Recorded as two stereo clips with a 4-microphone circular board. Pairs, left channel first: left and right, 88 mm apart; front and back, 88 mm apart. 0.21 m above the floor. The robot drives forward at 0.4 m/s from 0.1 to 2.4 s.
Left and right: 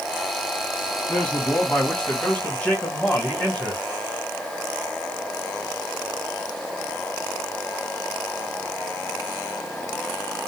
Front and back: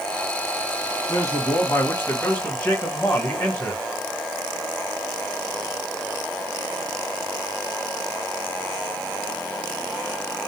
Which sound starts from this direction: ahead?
A man speaking, at 1.1 s.